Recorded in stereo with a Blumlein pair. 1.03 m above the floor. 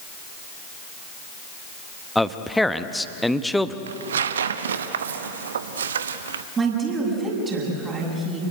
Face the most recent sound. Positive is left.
turn(degrees=-25)